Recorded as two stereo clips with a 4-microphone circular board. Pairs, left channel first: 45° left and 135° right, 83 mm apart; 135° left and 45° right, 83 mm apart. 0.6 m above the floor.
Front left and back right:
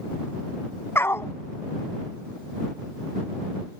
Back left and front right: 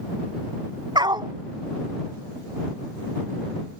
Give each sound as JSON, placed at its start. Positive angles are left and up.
{"t": 0.9, "sound": "a dog barking", "azimuth_deg": -15}